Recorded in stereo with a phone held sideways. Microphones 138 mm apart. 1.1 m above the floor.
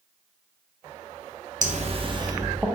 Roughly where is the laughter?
Right.